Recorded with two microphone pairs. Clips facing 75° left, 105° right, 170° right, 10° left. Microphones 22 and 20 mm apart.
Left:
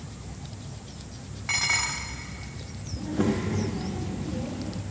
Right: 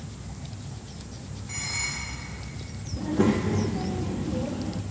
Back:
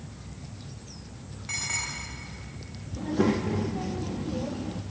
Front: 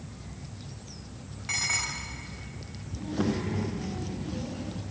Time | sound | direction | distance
1.5 | dishes clattering | 85° left | 1.5 m
3.0 | a child speaking | 165° right | 0.9 m